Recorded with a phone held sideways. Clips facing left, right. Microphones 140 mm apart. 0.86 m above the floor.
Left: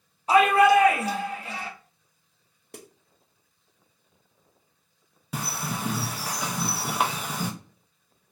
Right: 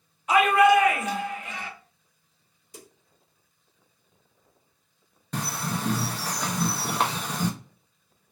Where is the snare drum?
60° left (ahead or behind), 0.5 m.